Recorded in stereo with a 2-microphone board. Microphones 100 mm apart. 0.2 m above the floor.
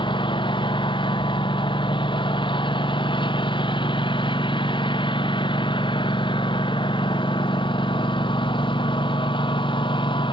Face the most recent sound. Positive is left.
turn(degrees=55)  # may be behind; listen again after turning